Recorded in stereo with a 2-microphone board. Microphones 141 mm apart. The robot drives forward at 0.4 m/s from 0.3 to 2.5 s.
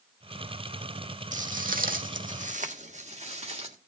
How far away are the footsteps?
About 1.3 m.